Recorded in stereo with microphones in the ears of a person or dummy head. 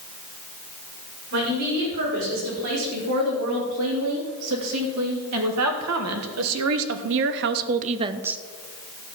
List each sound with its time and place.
1.3 s a woman speaking: 75° right (ahead or behind), 4.5 m; by 8.4 s centre (ahead or behind), 0.6 m